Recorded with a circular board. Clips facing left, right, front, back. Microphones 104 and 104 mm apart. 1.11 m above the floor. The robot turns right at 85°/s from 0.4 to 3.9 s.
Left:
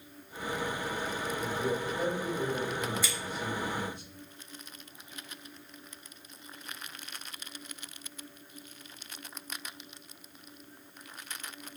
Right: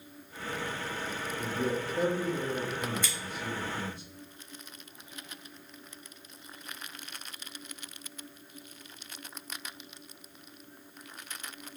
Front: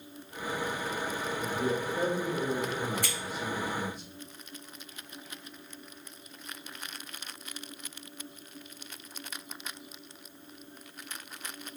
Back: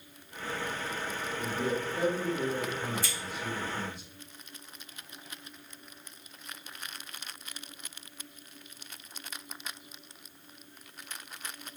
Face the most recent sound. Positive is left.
turn(degrees=80)